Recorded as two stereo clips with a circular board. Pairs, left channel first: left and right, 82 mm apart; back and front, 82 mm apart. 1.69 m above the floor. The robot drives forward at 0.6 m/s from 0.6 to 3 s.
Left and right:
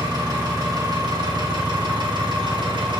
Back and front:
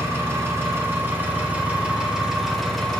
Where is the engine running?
55° right, 2 m; by 3.0 s 95° right, 1.8 m.